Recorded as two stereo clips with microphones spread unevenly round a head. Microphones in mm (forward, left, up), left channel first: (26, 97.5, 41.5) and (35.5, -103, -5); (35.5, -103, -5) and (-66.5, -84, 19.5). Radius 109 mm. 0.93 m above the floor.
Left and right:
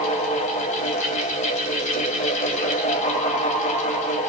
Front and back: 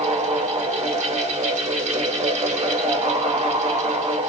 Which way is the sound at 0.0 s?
155° left.